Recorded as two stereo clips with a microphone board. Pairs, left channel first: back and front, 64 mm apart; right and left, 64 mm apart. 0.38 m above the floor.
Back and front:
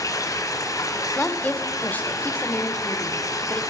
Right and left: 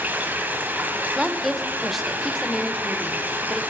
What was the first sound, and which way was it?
Running water, 150° left.